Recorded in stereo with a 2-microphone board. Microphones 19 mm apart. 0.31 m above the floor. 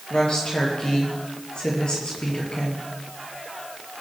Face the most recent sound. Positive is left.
turn(degrees=45)  # may be behind; listen again after turning